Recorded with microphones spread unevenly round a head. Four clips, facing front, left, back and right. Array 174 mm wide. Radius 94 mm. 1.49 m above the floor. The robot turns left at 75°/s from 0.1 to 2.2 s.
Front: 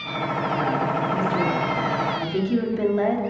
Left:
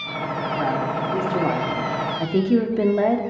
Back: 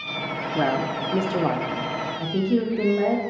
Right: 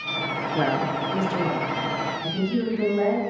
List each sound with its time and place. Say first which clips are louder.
0.6 s a woman speaking: right 1 dB, back 2 dB; 140° right, 0.7 m; by 3.2 s 95° left, 0.7 m